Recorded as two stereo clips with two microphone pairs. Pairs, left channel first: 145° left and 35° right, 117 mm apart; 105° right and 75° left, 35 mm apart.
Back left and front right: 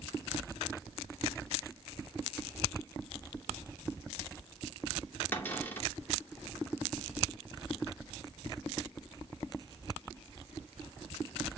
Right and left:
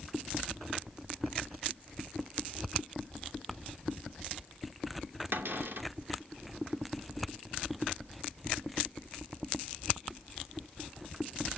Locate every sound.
5.3 s a cupboard door: 75° left, 2.5 m